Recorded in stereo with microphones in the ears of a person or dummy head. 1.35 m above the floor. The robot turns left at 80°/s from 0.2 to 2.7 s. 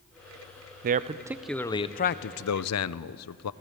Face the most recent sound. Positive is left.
turn(degrees=85)